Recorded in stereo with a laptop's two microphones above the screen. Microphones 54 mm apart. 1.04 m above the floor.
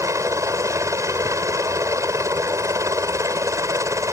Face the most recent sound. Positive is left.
turn(degrees=-65)  # may be behind; listen again after turning